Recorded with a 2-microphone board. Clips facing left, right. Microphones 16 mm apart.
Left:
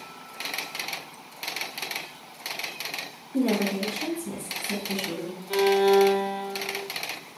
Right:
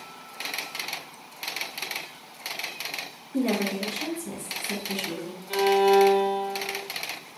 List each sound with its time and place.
3.3 s a woman speaking: 40° right (ahead or behind), 1.9 m; by 5.4 s 30° right (ahead or behind), 2.5 m
5.5 s a violin: 20° right (ahead or behind), 2 m